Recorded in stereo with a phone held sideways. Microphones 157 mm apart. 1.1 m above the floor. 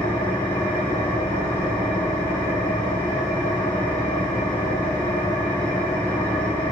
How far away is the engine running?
About 5.5 m.